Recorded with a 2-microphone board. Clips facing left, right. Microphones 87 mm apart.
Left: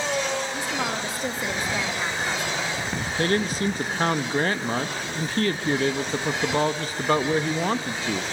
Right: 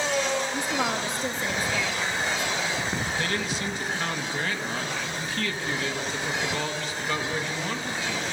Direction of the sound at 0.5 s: 20° right (ahead or behind).